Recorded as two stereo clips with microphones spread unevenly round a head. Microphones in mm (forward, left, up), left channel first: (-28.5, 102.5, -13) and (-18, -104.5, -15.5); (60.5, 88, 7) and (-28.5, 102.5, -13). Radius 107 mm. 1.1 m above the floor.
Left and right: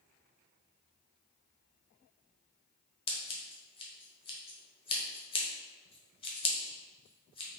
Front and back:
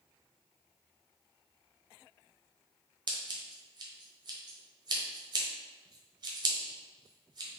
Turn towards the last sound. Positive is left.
turn(degrees=145)